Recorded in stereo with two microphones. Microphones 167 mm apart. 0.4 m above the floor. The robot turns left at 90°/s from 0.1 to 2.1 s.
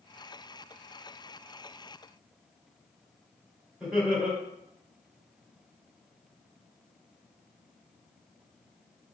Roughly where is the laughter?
Centre.